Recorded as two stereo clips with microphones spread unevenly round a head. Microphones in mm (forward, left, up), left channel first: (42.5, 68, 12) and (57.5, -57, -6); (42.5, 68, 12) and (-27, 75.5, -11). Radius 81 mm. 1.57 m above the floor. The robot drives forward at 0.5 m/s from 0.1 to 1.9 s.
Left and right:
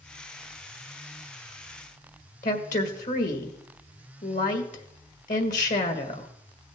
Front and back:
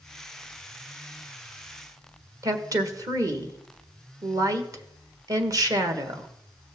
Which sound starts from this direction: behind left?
A woman speaking, at 2.4 s.